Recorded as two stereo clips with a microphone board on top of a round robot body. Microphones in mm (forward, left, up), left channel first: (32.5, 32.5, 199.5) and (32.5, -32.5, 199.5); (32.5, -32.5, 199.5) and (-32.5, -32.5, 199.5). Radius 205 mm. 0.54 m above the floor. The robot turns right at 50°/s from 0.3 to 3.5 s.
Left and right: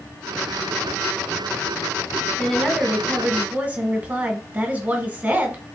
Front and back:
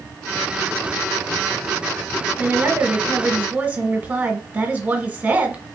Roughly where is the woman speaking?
Behind.